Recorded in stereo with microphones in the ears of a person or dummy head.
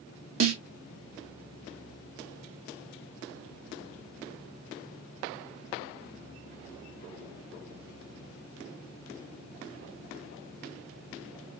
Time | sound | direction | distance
0.4 | a snare drum | 85° right | 0.9 m